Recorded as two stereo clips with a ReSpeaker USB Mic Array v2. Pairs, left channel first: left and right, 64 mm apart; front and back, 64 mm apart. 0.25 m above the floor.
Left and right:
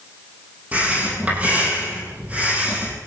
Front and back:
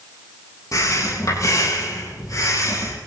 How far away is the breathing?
About 8.5 m.